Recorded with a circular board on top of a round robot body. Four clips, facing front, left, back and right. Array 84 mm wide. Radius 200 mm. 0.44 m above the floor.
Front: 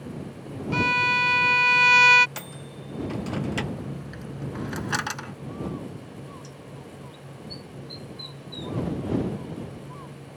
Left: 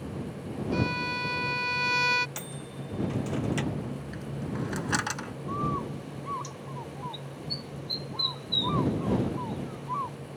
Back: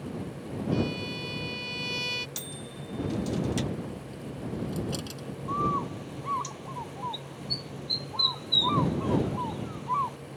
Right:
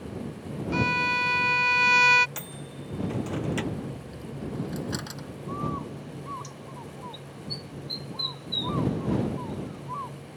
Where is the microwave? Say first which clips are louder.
Even, front 2 dB; 5° right.